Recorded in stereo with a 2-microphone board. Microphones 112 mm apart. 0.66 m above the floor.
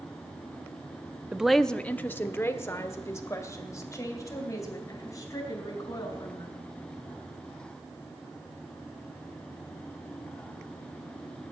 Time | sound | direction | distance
1.3 | a woman speaking | 10° right (ahead or behind) | 0.6 m